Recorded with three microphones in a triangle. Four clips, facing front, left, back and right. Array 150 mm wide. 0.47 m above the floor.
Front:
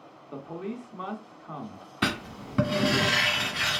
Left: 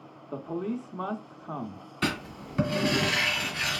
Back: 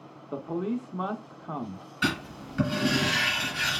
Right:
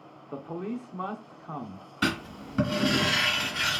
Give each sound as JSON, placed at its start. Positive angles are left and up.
{"t": 0.3, "sound": "a man speaking", "azimuth_deg": 165, "distance_m": 0.7}
{"t": 2.0, "sound": "writing", "azimuth_deg": -10, "distance_m": 1.9}